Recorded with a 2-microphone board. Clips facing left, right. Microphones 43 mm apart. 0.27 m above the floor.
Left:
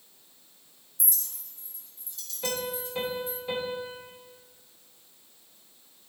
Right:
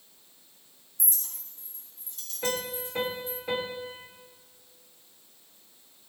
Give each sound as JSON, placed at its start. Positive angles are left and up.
{"t": 1.0, "sound": "a clink", "side_deg": -40, "distance_m": 1.7}
{"t": 2.4, "sound": "a piano", "side_deg": -60, "distance_m": 5.5}